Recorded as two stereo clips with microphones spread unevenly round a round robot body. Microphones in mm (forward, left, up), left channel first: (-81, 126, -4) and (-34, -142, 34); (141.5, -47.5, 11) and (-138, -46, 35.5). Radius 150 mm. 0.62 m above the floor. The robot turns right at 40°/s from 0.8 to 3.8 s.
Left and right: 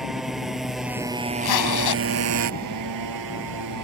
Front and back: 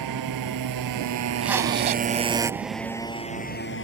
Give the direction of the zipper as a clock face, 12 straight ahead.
9 o'clock.